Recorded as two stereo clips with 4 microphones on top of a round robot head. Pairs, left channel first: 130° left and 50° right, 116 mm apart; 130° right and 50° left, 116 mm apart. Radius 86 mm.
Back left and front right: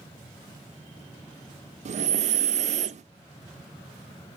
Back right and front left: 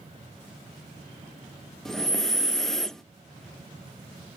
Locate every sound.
1.9 s breathing: 40° right, 0.6 m